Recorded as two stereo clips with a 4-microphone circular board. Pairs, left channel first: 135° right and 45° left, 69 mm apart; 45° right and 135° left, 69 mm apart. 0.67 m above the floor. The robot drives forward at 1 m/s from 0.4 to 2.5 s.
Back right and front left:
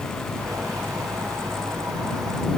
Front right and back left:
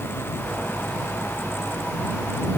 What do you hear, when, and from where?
Only background noise.